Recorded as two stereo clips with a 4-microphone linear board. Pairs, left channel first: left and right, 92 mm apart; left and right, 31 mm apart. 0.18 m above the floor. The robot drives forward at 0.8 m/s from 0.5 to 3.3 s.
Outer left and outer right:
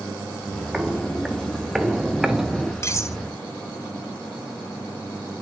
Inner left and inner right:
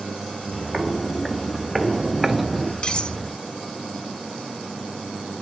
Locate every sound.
0.7 s footsteps: 5° right (ahead or behind), 1.4 m
2.8 s cutlery clinking: 30° left (ahead or behind), 1.1 m; by 3.2 s 35° left (ahead or behind), 1.0 m